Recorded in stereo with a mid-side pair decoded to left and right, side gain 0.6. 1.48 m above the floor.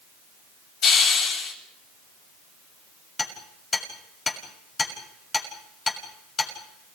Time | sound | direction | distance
0.8 | a hiss | 60° left | 8 m
3.2 | hammering | 25° left | 7 m